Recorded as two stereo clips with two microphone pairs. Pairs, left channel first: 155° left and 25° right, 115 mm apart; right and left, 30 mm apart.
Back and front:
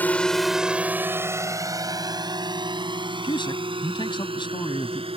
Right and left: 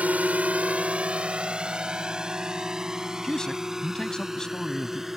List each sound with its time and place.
0.0 s a drone: 85° left; by 5.2 s 15° left
3.2 s a man speaking: 160° right